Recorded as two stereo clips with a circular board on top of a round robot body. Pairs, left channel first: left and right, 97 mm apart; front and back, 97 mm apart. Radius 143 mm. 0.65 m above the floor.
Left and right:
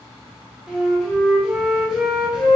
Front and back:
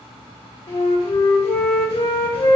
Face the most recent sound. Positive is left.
turn(degrees=-10)